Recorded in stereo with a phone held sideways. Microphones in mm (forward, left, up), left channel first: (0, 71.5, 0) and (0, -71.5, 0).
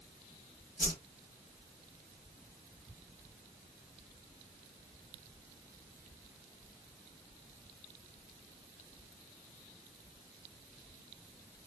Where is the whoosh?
65° left (ahead or behind), 1.3 m.